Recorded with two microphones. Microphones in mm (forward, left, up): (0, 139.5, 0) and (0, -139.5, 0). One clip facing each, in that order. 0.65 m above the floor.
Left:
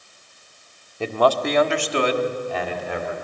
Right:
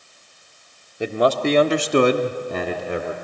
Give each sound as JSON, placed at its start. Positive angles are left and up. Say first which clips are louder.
{"t": 1.0, "sound": "a man speaking", "louder": "right 1 dB", "side_deg": -15, "distance_m": 1.3}